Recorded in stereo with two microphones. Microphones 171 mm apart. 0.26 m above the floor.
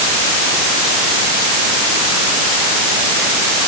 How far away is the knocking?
I don't hear knocking.